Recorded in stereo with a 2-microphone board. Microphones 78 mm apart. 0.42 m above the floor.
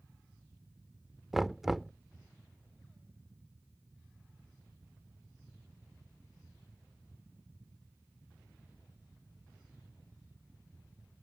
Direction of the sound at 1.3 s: 5° right (ahead or behind).